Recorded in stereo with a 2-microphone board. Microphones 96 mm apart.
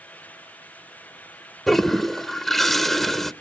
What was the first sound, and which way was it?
A toilet flushing, 5° left (ahead or behind).